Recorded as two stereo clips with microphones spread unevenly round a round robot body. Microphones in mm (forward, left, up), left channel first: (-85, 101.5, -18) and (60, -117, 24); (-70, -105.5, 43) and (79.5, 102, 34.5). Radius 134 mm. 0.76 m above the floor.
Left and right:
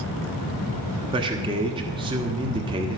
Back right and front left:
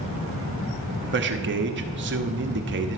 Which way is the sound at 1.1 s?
20° left.